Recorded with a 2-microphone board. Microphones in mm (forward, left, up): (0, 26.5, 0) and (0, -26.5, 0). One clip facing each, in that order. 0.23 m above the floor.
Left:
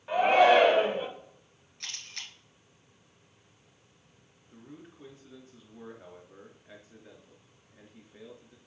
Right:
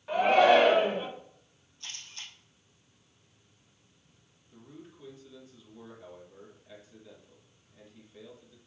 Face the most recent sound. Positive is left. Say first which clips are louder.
# left 1 dB
turn(degrees=35)  # may be behind; listen again after turning